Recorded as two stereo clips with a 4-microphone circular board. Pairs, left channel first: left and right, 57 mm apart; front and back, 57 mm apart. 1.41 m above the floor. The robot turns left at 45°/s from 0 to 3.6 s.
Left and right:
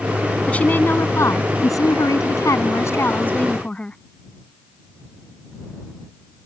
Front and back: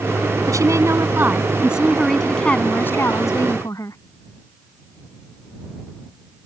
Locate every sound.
0.5 s a woman speaking: 160° left; by 4.0 s 20° left